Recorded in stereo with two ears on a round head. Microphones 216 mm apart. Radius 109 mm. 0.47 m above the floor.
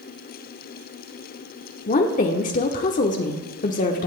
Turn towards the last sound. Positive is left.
turn(degrees=35)  # may be behind; listen again after turning